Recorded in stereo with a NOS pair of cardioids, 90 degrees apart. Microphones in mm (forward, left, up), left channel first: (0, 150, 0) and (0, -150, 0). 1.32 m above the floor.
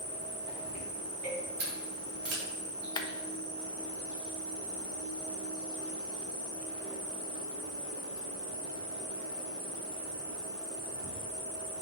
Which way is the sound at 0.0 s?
70° right.